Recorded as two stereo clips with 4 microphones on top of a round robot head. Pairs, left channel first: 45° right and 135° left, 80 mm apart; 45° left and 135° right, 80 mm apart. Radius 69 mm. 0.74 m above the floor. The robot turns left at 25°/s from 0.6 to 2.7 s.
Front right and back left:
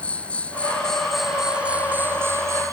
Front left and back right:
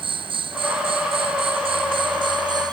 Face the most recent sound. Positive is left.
turn(degrees=-175)